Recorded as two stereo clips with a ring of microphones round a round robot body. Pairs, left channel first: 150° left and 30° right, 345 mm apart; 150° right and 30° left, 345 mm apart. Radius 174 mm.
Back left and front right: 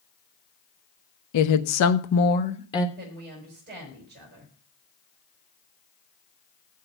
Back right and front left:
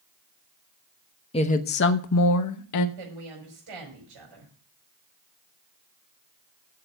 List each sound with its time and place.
1.3 s a woman speaking: 140° left, 1.1 m; by 2.9 s 130° right, 1.1 m
3.0 s a woman speaking: 35° left, 5 m